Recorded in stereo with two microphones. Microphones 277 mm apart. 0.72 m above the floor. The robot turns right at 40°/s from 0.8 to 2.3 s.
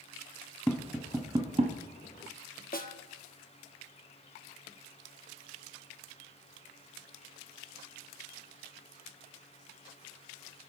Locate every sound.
0.7 s tapping: centre (ahead or behind), 1.1 m; by 1.8 s 25° right (ahead or behind), 1.1 m
2.7 s a snare drum: 30° left (ahead or behind), 1.1 m